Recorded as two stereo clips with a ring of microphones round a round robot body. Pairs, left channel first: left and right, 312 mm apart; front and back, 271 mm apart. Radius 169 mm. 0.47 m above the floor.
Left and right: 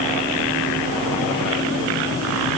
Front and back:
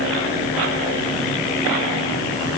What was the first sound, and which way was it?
Only background noise.